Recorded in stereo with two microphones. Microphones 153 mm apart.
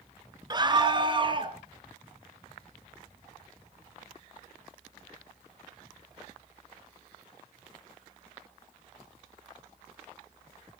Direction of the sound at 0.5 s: 30° right (ahead or behind).